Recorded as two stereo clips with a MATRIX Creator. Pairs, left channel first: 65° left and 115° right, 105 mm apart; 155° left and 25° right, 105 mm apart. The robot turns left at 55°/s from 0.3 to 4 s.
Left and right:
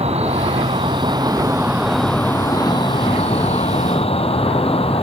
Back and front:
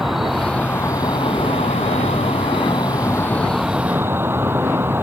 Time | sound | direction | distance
0.0 | an insect | 110° right | ?